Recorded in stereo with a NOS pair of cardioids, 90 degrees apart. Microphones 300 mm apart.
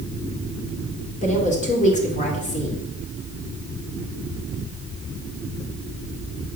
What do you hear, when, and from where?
1.2 s a woman speaking: 25° left, 2.5 m